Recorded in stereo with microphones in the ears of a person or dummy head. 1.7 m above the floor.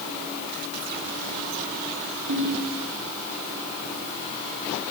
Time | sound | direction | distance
2.3 | a ringtone | 70° right (ahead or behind) | 6 m